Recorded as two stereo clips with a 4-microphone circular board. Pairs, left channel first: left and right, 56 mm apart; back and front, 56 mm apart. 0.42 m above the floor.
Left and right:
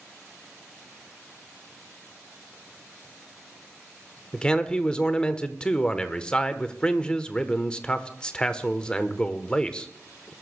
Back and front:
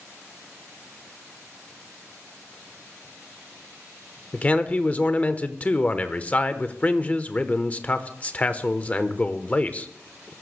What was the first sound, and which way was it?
A man speaking, 145° left.